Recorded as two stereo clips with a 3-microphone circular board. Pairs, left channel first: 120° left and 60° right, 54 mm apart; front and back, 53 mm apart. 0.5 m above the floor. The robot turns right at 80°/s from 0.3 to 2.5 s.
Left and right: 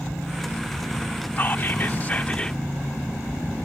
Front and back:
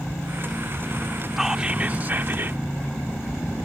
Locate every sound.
1.4 s whispering: 95° left; by 2.6 s 175° right